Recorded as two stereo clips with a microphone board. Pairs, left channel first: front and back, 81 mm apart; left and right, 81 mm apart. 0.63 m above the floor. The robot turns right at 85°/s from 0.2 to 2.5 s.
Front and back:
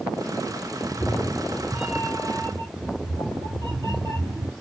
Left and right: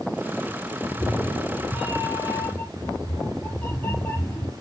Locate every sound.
0.8 s a cat meowing: 10° left, 3.5 m; by 4.5 s 155° left, 3.5 m